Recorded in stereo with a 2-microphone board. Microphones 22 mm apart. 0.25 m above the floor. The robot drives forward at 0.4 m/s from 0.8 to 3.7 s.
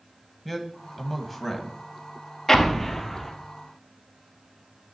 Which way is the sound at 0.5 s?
Centre (ahead or behind).